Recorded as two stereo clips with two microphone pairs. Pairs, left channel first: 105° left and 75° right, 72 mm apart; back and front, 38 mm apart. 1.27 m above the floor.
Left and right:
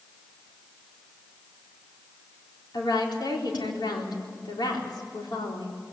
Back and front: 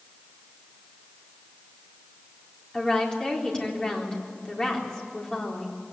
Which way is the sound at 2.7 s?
105° left.